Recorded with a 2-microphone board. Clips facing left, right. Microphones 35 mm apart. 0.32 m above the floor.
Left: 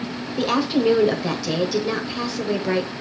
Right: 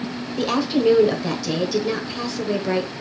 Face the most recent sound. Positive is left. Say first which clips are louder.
# even
turn(degrees=5)  # may be behind; listen again after turning